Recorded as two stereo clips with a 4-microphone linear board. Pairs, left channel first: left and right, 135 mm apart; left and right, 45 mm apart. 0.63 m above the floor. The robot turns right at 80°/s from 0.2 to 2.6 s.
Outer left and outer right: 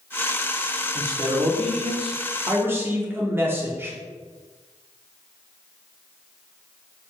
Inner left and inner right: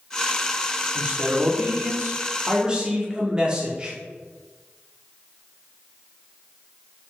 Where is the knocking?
No knocking in this recording.